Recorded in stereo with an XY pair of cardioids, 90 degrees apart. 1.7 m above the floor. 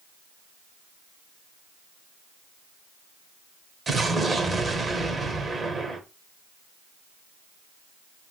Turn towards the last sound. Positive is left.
turn(degrees=-40)